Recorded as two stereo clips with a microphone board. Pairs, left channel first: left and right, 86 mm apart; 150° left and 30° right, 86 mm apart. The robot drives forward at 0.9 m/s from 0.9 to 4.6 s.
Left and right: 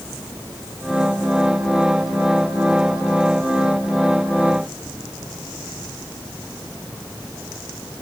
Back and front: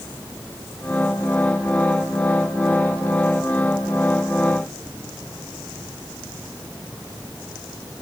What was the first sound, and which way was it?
Only background noise.